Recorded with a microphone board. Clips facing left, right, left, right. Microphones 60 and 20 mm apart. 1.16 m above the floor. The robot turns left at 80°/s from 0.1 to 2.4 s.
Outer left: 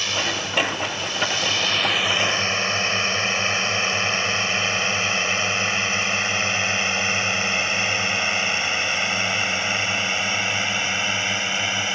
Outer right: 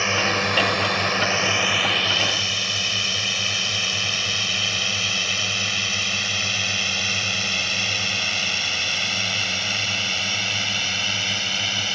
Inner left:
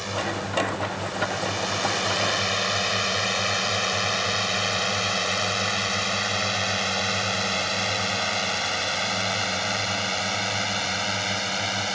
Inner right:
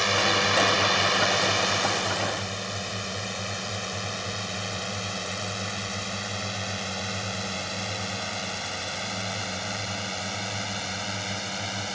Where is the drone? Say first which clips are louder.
Outer right 4 dB, inner right 6 dB; 35° right (ahead or behind); by 11.9 s 20° left (ahead or behind).